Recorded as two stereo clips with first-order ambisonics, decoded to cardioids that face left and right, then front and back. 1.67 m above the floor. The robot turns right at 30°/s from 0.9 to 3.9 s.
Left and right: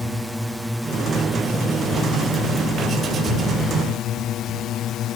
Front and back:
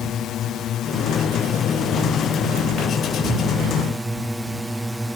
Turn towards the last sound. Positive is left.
turn(degrees=90)